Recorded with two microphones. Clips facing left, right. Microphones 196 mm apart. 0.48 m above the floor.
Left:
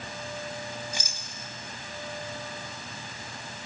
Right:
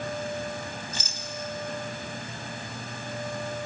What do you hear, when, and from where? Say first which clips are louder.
0.9 s a rattle: right 1 dB; 15° left (ahead or behind), 1.4 m